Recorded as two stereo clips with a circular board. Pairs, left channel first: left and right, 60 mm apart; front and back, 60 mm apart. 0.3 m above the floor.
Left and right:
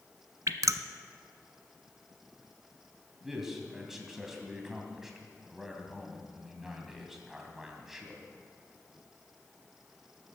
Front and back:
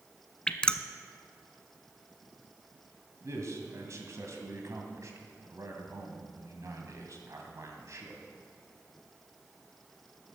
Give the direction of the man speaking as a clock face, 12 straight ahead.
6 o'clock.